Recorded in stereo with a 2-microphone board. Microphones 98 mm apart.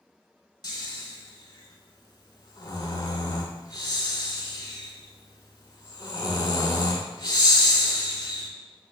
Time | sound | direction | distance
0.6 | snoring | 45° left (ahead or behind) | 0.5 m